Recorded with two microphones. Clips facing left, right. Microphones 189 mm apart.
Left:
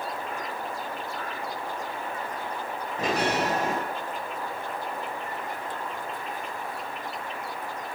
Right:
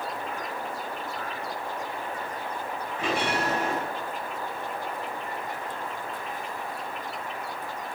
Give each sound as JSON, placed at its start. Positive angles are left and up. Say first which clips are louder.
{"t": 3.0, "sound": "a bell", "louder": "left 2 dB", "side_deg": 40, "distance_m": 3.5}